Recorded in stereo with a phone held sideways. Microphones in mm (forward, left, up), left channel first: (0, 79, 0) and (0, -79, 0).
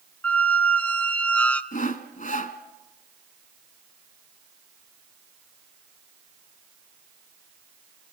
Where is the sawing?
55° left (ahead or behind), 1.3 m.